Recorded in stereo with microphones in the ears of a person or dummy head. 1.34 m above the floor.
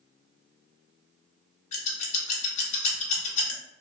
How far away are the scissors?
About 0.6 m.